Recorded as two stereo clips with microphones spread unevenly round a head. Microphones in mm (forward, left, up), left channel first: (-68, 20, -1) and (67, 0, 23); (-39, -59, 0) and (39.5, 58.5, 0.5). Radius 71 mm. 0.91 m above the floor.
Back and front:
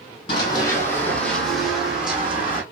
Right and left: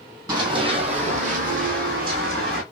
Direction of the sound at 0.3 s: 115° left.